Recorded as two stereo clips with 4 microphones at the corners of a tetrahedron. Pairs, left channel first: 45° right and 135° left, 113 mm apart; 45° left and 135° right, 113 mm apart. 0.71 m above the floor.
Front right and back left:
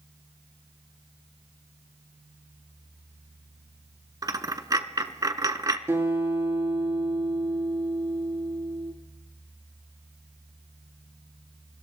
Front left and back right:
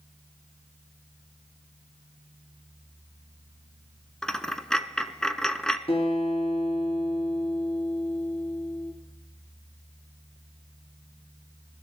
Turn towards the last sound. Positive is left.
turn(degrees=70)